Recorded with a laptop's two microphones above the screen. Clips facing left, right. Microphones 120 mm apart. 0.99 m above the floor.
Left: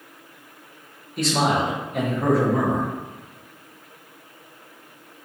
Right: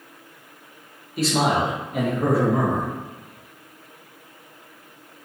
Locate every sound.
1.2 s a man speaking: 5° right (ahead or behind), 0.9 m